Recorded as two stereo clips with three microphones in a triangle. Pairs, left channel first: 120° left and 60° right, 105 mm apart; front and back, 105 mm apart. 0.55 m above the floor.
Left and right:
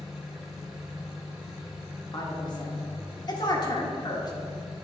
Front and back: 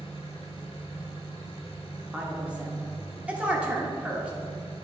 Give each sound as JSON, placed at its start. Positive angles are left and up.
{"t": 0.0, "sound": "an engine running", "azimuth_deg": 25, "distance_m": 2.0}
{"t": 2.1, "sound": "a woman speaking", "azimuth_deg": 110, "distance_m": 1.4}